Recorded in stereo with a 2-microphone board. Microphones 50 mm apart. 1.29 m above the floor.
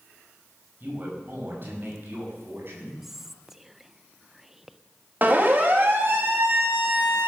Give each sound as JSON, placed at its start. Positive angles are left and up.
{"t": 0.8, "sound": "a man speaking", "side_deg": -40, "distance_m": 6.0}
{"t": 3.0, "sound": "whispering", "side_deg": -10, "distance_m": 0.6}
{"t": 5.2, "sound": "a siren", "side_deg": -35, "distance_m": 3.0}